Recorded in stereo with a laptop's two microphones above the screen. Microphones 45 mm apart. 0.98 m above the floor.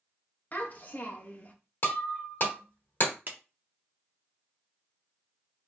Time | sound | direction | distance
0.5 | a child speaking | 40° left (ahead or behind) | 0.6 m
1.8 | breaking glass | 50° left (ahead or behind) | 1.0 m
3.3 | a clap | 45° right (ahead or behind) | 0.6 m